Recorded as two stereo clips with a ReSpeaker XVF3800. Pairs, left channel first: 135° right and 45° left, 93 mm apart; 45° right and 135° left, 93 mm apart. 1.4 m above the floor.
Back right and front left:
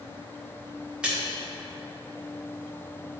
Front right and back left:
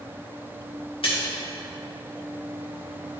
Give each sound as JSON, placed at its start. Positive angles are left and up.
{"t": 1.0, "sound": "a splash", "azimuth_deg": -35, "distance_m": 1.8}